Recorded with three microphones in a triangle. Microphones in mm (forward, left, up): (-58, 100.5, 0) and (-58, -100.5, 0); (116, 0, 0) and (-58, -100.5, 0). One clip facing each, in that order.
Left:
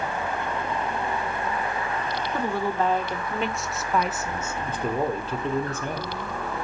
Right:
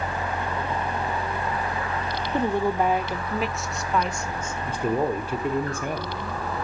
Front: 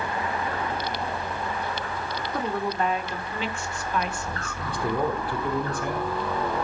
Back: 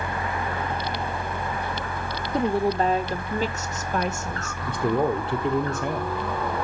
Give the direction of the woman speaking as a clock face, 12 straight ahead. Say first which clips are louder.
Right 4 dB, back 6 dB; 4 o'clock.